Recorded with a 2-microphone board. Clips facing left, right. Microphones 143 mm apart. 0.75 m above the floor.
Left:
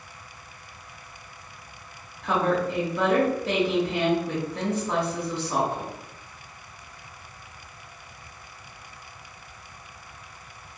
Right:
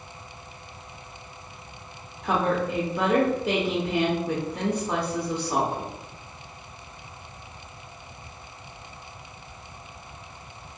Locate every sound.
2.2 s a woman speaking: 15° right (ahead or behind), 0.6 m